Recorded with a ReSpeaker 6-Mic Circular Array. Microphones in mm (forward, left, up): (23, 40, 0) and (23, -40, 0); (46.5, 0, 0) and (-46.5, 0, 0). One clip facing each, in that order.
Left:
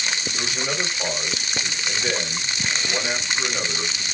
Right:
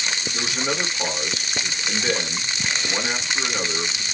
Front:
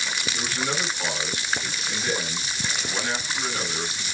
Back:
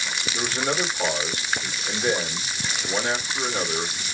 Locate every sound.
0.3 s a man speaking: 130° right, 1.7 m